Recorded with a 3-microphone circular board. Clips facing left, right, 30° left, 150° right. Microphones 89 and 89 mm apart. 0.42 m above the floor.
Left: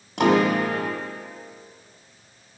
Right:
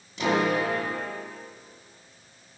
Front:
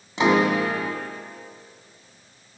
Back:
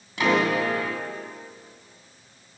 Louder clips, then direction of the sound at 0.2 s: Left 5 dB, front 3 dB; 95° left.